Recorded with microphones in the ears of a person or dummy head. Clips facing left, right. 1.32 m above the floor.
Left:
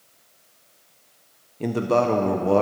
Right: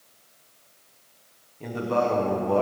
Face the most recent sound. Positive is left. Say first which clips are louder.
# left 4 dB
turn(degrees=55)  # may be behind; listen again after turning